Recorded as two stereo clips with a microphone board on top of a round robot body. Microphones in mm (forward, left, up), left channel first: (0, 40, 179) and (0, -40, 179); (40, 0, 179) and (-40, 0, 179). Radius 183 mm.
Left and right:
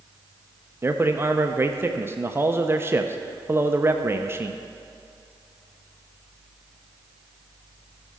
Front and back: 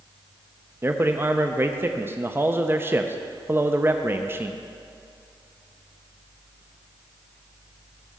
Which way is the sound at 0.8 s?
135° right.